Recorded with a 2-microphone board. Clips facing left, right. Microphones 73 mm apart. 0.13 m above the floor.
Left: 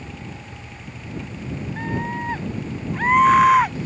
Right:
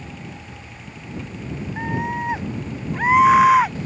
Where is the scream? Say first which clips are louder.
Right 2 dB; 15° right (ahead or behind); by 3.8 s centre (ahead or behind).